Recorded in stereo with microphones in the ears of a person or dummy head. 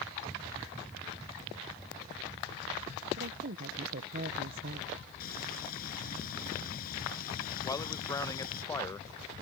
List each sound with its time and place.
3.2 s a woman speaking: 50° right (ahead or behind)
5.2 s frying: 50° left (ahead or behind)
7.6 s a man speaking: 15° left (ahead or behind)